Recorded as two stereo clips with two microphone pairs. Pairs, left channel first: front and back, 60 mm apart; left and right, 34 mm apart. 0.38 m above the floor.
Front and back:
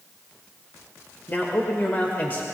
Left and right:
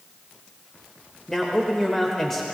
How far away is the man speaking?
About 1.2 m.